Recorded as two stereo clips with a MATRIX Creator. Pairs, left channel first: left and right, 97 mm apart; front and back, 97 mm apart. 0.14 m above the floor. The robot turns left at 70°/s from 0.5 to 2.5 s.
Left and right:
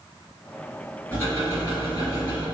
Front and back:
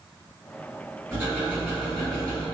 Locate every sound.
1.1 s ticking: 145° left, 1.7 m; by 2.5 s 50° left, 1.7 m